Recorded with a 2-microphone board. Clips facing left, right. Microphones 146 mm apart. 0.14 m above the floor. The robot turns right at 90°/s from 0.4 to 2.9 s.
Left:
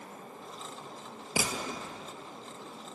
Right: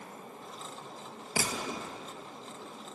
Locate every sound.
1.4 s a gunshot: 160° left, 0.8 m; by 1.9 s 150° right, 0.8 m